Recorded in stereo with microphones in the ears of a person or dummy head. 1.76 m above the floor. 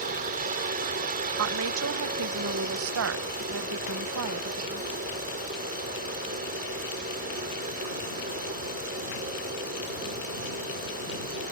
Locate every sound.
0.0 s a helicopter: 45° right (ahead or behind)
1.4 s a woman speaking: 70° right (ahead or behind)